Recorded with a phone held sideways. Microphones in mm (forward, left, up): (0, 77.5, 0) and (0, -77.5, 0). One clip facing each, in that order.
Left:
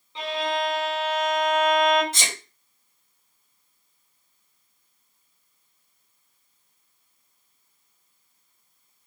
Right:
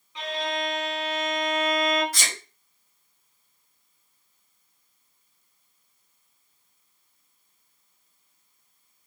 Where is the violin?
25° left (ahead or behind), 1.0 m.